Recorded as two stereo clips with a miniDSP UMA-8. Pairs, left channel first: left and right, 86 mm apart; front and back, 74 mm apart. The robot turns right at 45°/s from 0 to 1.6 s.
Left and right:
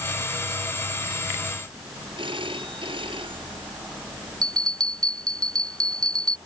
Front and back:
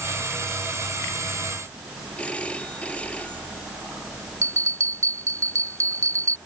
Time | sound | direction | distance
2.2 | a phone ringing | 75° right | ?
4.4 | a bell | 130° right | ?